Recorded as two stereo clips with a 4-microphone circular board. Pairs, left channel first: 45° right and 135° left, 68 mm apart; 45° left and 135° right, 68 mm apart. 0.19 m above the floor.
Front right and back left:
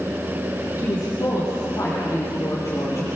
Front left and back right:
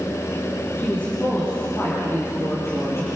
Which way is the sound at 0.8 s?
15° right.